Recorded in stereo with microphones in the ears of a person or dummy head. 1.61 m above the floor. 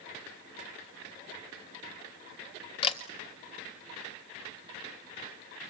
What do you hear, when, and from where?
2.8 s a camera shutter: 30° left (ahead or behind), 1.2 m